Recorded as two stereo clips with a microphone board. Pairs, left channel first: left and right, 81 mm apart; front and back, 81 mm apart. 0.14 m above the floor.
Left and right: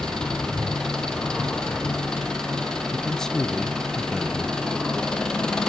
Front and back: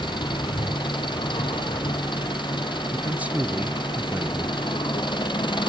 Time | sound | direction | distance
0.0 | an engine running | 10° left | 3.5 m
2.9 | a man speaking | 160° left | 1.0 m